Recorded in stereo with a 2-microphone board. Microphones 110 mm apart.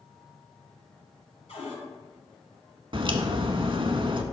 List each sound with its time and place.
1.5 s a cupboard door: 65° left (ahead or behind), 3.5 m
2.9 s a crack: 50° right (ahead or behind), 0.7 m